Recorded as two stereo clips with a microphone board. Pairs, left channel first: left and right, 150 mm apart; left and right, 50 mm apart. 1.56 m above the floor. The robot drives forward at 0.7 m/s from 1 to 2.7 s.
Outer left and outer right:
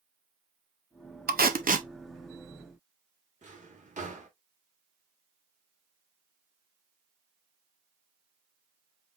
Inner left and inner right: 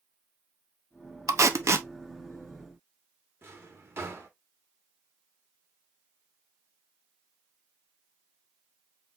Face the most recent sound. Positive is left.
turn(degrees=-55)  # may be behind; listen again after turning